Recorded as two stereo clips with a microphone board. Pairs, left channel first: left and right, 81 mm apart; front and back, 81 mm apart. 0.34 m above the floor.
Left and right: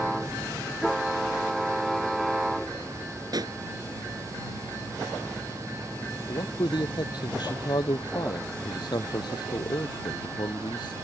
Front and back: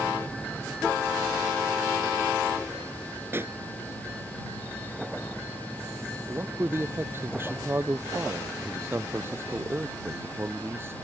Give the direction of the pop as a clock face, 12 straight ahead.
4 o'clock.